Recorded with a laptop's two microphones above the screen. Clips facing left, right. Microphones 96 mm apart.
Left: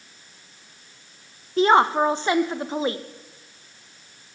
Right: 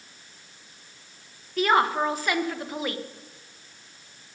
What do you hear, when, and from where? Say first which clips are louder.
1.6 s a woman speaking: left 5 dB; 25° left (ahead or behind), 0.8 m